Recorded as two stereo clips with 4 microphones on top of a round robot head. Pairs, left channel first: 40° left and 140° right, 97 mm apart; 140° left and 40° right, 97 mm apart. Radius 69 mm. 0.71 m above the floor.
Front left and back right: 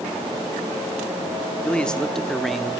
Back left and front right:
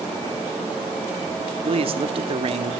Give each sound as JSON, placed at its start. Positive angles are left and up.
{"t": 1.6, "sound": "a man speaking", "azimuth_deg": -35, "distance_m": 2.5}